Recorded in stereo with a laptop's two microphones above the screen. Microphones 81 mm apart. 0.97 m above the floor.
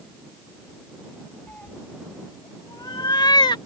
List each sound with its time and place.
1.5 s a cat meowing: 20° left (ahead or behind); by 3.6 s 75° left (ahead or behind)